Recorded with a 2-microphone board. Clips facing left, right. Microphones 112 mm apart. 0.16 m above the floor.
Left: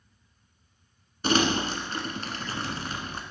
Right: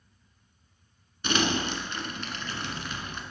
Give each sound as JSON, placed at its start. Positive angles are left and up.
{"t": 1.2, "sound": "crumpling", "side_deg": 40, "distance_m": 1.3}